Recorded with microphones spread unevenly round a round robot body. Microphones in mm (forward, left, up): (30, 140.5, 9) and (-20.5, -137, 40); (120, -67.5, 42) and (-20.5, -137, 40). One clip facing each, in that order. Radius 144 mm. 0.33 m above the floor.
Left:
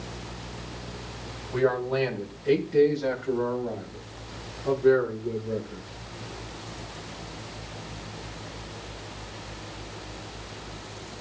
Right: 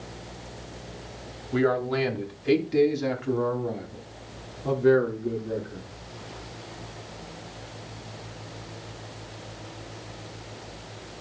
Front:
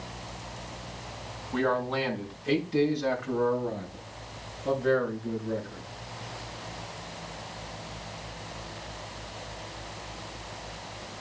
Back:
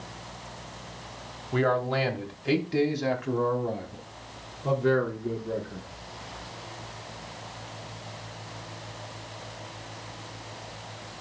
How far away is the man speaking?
About 2 m.